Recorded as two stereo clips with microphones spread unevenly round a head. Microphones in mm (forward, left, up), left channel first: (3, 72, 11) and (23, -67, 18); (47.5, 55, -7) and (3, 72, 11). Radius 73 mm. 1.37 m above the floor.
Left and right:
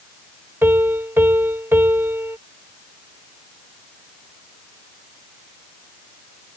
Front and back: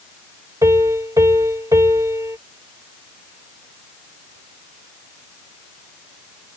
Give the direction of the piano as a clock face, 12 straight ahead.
5 o'clock.